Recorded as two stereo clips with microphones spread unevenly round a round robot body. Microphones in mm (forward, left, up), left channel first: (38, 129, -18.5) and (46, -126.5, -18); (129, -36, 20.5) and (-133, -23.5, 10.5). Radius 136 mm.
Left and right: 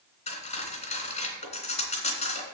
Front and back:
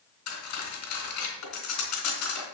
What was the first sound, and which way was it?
Cutlery clinking, 25° left.